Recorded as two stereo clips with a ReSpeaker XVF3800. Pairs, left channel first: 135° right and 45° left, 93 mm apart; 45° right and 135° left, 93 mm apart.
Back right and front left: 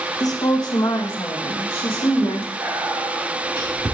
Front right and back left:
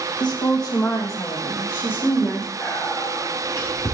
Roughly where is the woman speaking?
Right.